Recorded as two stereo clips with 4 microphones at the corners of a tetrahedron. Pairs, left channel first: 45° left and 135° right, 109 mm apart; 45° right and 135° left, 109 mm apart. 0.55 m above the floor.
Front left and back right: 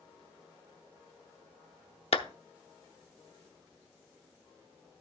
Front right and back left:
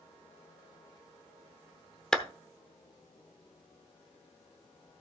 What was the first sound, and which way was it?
A clap, 35° left.